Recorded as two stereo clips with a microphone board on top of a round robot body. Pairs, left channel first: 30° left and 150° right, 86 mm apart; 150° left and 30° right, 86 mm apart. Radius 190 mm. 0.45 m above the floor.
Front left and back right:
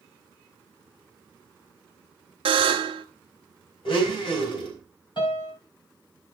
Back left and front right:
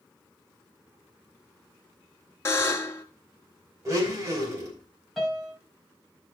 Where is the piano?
55° left, 3.5 m.